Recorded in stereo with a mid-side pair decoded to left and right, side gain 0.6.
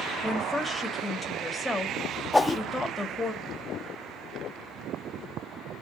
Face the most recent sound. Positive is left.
turn(degrees=10)